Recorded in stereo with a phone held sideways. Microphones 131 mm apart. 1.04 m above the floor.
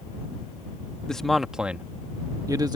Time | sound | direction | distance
1.1 | a man speaking | 5° left (ahead or behind) | ?